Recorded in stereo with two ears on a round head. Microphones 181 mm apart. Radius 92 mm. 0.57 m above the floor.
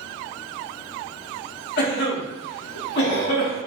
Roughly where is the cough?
Left.